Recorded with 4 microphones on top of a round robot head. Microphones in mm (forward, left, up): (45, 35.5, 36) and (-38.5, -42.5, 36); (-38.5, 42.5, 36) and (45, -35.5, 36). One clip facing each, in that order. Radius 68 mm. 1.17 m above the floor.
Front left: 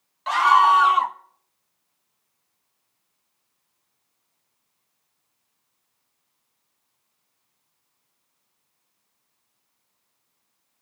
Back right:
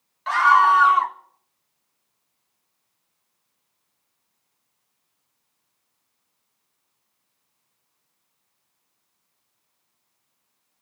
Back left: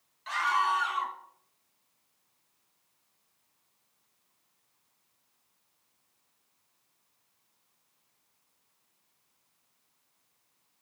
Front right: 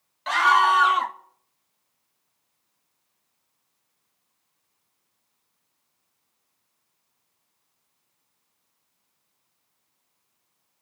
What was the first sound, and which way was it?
A scream, 30° right.